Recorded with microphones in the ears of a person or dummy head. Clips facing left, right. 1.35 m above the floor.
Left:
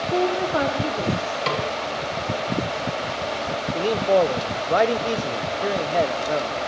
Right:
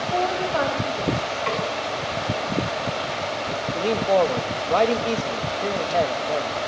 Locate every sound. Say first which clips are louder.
0.1 s a woman speaking: left 2 dB; 50° left (ahead or behind), 3 m; by 1.4 s 40° left (ahead or behind), 4 m
1.5 s a snare drum: left 1 dB; 55° left (ahead or behind), 6 m
3.7 s a man speaking: left 1 dB; 10° left (ahead or behind), 1.2 m